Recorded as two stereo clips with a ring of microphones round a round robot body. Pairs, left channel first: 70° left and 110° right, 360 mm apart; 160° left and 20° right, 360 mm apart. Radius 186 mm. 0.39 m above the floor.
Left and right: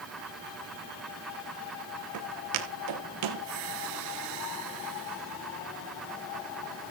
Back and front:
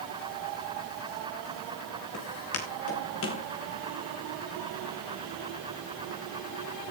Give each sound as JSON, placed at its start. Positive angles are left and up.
{"t": 2.1, "sound": "footsteps", "azimuth_deg": -155, "distance_m": 6.5}